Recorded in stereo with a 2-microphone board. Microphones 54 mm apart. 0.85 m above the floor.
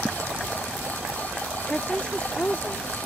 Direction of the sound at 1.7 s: 15° left (ahead or behind).